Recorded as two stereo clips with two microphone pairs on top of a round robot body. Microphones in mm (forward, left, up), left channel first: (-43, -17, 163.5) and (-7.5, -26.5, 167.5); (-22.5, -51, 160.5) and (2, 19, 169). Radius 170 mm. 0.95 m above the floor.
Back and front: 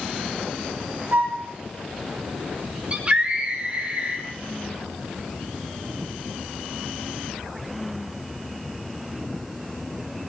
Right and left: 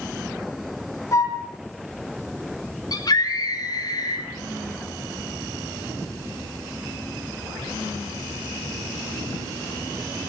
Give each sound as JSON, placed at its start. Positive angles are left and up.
{"t": 1.1, "sound": "a flute", "azimuth_deg": -60, "distance_m": 2.0}
{"t": 2.9, "sound": "a scream", "azimuth_deg": -80, "distance_m": 5.0}